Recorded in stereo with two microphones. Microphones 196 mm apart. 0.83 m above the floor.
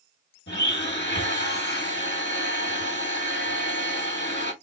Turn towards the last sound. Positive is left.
turn(degrees=60)  # may be behind; listen again after turning